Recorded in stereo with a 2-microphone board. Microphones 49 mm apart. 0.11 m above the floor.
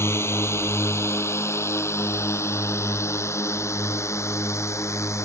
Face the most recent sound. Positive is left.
turn(degrees=70)  # may be behind; listen again after turning